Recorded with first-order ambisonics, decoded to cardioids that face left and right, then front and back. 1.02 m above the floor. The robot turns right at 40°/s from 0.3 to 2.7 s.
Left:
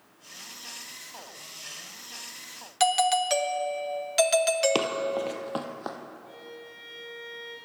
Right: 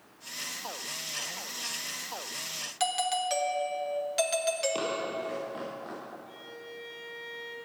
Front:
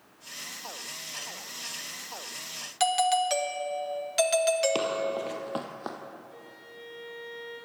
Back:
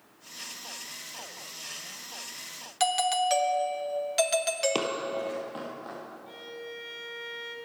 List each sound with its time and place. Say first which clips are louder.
2.8 s a doorbell: left 7 dB, front 1 dB; 80° left, 0.7 m
4.8 s running footsteps: left 5 dB, front 1 dB; 100° left, 1.3 m; by 6.0 s 50° left, 2.5 m
6.3 s a violin: left 1 dB, back 6 dB; 175° left, 2.5 m